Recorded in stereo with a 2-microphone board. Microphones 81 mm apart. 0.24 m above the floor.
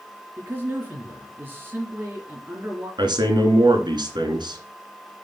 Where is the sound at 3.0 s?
65° right (ahead or behind), 2.5 m.